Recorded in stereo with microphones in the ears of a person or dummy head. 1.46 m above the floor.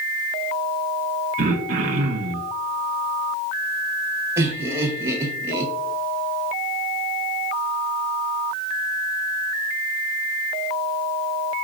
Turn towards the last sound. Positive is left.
turn(degrees=-20)  # may be behind; listen again after turning